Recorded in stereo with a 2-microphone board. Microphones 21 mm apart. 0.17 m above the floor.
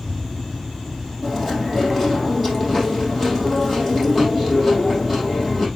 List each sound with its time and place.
1.2 s chewing: 10° right (ahead or behind), 4 m